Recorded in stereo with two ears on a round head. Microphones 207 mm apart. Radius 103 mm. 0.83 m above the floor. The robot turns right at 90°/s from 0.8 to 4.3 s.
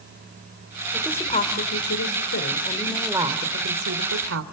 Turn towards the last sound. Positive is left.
turn(degrees=-65)